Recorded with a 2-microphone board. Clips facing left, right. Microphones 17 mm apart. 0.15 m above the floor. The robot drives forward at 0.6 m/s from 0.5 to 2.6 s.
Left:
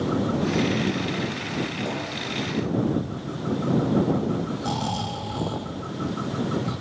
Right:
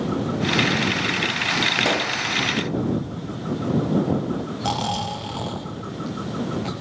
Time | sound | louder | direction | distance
1.8 | a pop | right 8 dB | 55° right (ahead or behind) | 1.1 m
4.6 | snoring | right 3 dB | 35° right (ahead or behind) | 5 m